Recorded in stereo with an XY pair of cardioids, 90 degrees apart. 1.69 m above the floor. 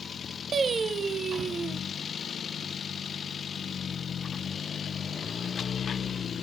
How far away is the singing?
About 0.9 m.